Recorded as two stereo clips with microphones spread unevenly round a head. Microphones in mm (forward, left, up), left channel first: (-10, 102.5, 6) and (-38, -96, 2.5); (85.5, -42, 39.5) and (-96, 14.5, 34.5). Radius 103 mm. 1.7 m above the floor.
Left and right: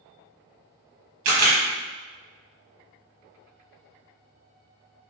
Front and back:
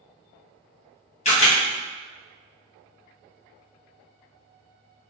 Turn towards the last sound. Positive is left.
turn(degrees=-75)